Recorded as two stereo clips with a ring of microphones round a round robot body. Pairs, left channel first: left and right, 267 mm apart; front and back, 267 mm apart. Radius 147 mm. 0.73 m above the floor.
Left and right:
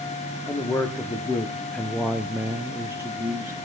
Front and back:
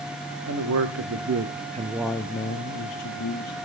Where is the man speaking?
170° left, 1.7 m; by 3.6 s 10° right, 1.7 m.